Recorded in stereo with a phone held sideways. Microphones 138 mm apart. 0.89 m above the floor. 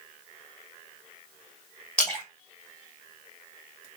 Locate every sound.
2.0 s a splash: 5° left (ahead or behind), 1.2 m